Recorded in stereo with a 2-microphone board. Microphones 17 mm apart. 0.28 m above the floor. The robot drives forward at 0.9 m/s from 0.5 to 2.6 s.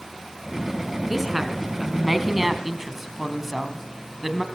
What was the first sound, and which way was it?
A woman speaking, 10° right (ahead or behind).